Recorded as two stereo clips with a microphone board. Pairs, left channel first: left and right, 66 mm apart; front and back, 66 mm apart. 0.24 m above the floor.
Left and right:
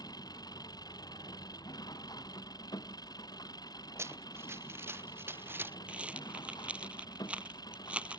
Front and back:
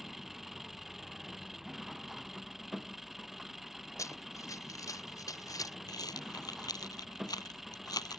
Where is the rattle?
15° right.